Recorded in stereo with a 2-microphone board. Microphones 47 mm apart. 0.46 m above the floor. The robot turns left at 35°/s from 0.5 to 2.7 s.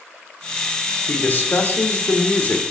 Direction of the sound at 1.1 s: 115° left.